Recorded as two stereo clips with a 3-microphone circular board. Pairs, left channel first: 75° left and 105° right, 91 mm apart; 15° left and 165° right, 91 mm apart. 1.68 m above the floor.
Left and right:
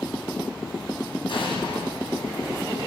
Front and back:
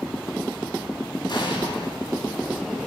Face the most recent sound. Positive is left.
turn(degrees=50)